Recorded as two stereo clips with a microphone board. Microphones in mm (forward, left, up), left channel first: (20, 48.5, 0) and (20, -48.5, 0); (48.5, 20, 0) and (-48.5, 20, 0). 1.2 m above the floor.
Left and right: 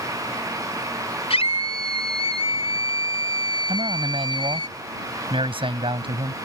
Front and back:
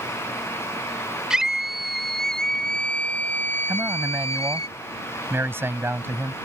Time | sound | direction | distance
1.3 | a scream | 95° left | ?
3.7 | a man speaking | 115° right | ?